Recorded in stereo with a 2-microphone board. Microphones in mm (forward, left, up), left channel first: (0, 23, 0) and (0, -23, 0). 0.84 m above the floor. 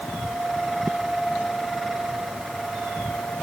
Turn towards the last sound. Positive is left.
No sound to turn to.